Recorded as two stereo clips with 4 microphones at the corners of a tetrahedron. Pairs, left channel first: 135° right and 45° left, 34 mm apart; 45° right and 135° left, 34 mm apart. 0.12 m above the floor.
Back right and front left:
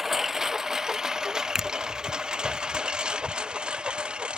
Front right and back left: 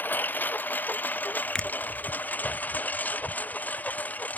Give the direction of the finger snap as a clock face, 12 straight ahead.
1 o'clock.